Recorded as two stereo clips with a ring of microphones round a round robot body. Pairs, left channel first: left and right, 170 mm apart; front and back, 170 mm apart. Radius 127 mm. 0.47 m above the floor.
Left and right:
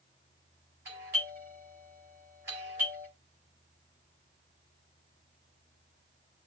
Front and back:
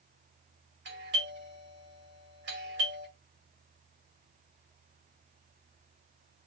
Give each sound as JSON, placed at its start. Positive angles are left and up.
{"t": 0.8, "sound": "a doorbell", "azimuth_deg": -165, "distance_m": 5.0}